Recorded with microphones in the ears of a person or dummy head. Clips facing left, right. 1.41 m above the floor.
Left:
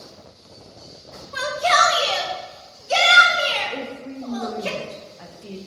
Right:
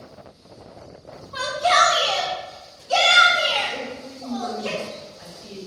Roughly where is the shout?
Left.